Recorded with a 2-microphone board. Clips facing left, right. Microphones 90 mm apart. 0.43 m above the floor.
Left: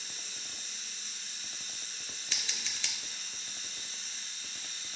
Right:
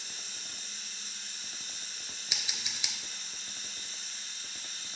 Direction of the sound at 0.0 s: 55° right (ahead or behind).